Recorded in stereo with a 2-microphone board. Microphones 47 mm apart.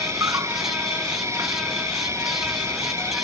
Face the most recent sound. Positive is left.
turn(degrees=-85)